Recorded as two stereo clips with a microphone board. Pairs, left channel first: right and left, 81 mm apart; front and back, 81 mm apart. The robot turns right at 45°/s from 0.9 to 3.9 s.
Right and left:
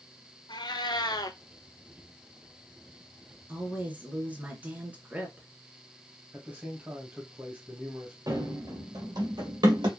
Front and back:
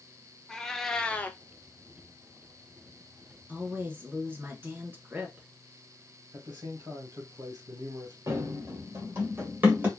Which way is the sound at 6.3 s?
155° left.